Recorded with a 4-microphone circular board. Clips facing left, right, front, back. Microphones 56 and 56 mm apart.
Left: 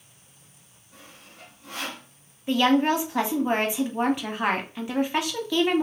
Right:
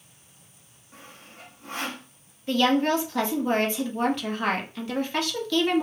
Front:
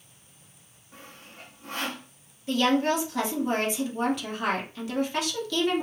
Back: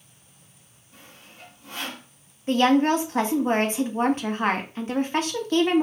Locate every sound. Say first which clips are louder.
0.9 s sawing: right 2 dB, front 2 dB; 40° right, 0.9 m
2.5 s a woman speaking: left 1 dB, back 4 dB; 160° left, 0.8 m